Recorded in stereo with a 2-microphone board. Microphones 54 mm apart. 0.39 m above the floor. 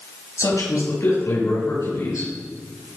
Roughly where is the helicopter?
I don't hear a helicopter.